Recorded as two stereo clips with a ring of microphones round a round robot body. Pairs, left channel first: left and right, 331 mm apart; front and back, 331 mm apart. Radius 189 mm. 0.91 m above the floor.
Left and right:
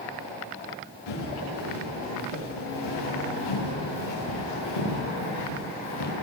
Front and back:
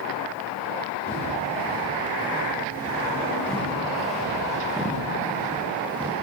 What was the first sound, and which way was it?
Footsteps, 75° left.